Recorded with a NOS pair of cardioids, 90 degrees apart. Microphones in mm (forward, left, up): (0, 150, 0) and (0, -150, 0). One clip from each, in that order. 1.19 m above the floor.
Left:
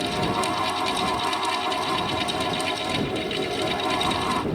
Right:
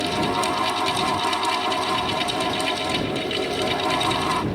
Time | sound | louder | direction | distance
0.0 | a fan | right 2 dB | 15° right | ?